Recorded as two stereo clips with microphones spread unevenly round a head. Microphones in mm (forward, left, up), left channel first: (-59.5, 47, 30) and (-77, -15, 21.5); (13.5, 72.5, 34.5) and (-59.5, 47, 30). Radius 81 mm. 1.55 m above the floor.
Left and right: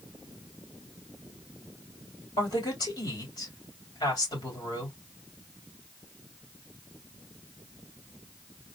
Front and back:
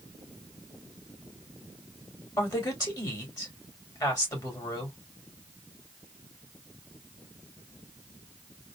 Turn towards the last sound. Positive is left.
turn(degrees=60)